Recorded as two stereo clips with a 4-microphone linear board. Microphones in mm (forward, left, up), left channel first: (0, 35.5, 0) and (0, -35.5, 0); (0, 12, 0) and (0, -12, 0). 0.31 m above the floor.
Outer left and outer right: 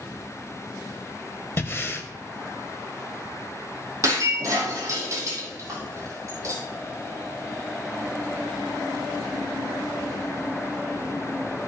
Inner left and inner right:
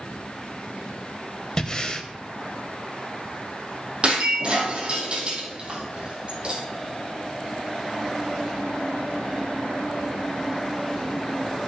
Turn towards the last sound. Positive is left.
turn(degrees=-45)  # may be behind; listen again after turning